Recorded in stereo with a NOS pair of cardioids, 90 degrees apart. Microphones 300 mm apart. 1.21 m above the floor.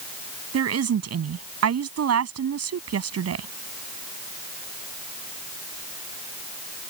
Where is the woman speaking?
55° right.